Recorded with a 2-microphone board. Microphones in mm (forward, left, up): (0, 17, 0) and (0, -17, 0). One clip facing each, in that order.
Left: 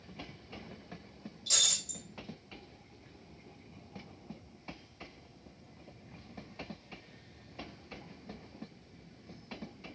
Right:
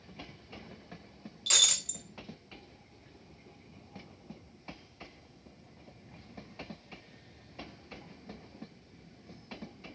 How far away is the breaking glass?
About 0.7 m.